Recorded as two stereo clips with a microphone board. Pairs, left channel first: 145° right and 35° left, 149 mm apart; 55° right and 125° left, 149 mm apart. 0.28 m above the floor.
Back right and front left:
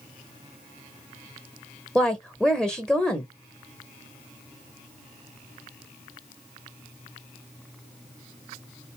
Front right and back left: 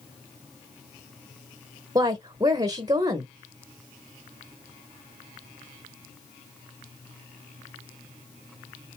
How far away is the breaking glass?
I don't hear breaking glass.